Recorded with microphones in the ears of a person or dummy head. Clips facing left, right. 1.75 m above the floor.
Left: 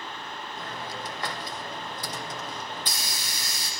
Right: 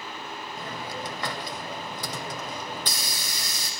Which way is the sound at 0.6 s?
70° right (ahead or behind).